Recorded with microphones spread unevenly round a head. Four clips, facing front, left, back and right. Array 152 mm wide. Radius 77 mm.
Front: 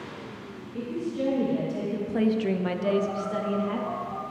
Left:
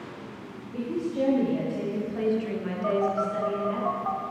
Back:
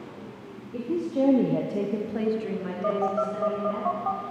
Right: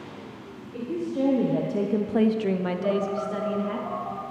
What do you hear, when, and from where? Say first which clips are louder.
0.7 s a woman speaking: even, back 4 dB; 170° right, 1.7 m; by 3.8 s 25° right, 2.5 m
2.8 s a phone buzzing: left 3 dB, back 3 dB; 165° left, 0.6 m